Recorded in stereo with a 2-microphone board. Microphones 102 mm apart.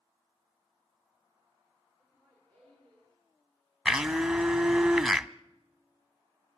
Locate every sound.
2.0 s laughter: 10° left (ahead or behind), 5 m
3.9 s a blender: 5° right (ahead or behind), 0.5 m